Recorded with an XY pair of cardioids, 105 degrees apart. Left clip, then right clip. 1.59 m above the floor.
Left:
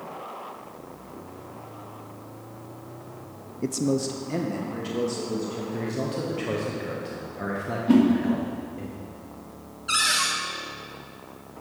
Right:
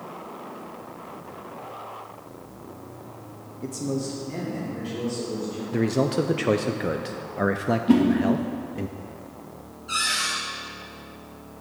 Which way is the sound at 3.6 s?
45° left.